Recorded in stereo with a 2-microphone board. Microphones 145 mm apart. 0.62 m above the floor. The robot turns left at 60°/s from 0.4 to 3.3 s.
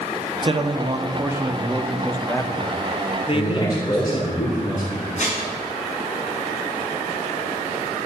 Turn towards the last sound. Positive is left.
turn(degrees=55)  # may be behind; listen again after turning